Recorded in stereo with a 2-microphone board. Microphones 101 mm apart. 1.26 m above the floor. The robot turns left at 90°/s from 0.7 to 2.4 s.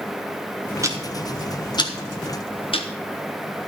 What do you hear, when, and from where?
0.8 s ticking: 30° right (ahead or behind), 1.3 m; by 2.9 s 65° left (ahead or behind), 1.3 m